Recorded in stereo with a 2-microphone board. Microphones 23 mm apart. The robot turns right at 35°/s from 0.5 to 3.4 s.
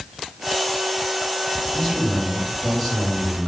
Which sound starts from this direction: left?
A man speaking, at 1.7 s.